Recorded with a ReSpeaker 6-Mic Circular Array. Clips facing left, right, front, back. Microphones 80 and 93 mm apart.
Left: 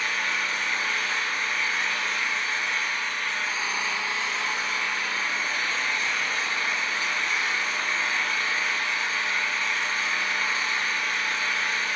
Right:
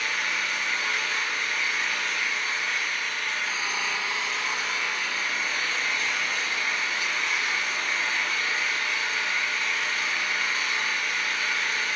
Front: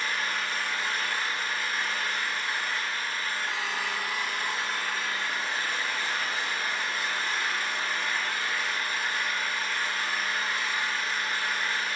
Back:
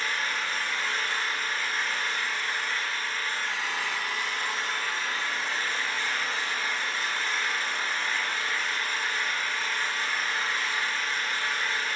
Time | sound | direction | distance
0.0 | an engine running | 75° left | 1.5 m